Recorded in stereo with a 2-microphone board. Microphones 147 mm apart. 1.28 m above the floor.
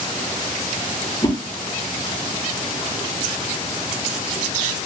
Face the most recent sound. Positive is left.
turn(degrees=30)  # may be behind; listen again after turning